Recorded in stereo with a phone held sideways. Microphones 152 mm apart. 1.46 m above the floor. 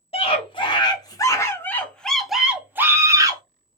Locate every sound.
0.1 s a scream: 40° left (ahead or behind), 1.8 m; by 3.4 s 25° right (ahead or behind), 1.4 m